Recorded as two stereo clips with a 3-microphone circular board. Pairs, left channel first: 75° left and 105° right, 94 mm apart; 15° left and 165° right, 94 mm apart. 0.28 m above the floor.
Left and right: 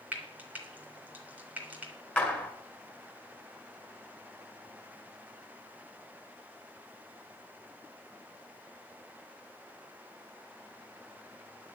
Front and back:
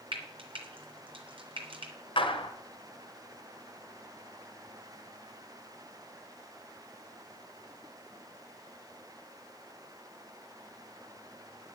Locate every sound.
0.1 s frying: straight behind, 3 m
2.2 s a clap: straight ahead, 2.5 m